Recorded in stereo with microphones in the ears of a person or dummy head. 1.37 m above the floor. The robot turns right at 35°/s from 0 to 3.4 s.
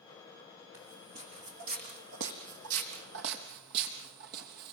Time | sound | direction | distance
0.7 | footsteps | 15° right (ahead or behind) | 5 m